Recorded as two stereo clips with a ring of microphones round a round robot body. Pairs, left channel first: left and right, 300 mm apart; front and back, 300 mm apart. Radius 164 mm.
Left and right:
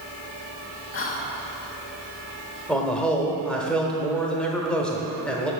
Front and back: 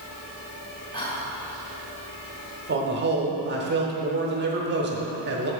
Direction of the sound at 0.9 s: 70° left.